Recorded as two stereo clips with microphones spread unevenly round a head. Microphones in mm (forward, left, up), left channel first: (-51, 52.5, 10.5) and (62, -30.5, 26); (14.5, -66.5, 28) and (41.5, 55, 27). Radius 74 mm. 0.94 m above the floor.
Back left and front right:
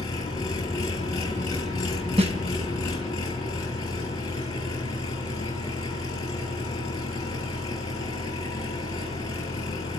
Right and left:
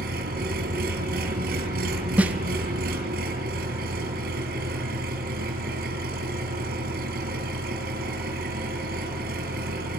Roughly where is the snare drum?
Ahead.